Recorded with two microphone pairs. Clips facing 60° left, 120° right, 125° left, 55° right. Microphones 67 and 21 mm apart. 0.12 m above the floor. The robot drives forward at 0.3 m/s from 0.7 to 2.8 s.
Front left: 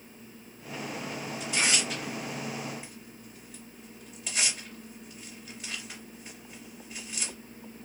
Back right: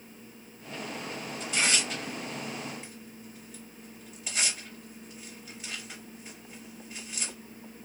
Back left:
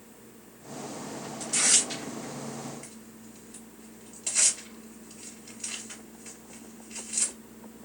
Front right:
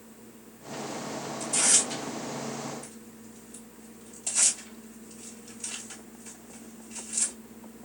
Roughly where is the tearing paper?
Behind left.